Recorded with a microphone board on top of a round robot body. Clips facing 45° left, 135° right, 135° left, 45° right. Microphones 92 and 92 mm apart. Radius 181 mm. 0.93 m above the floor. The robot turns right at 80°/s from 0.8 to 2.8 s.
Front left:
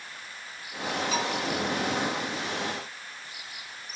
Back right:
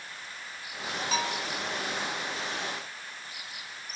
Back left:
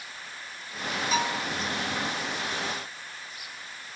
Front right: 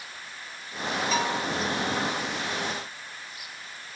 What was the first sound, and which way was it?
A bell, 140° right.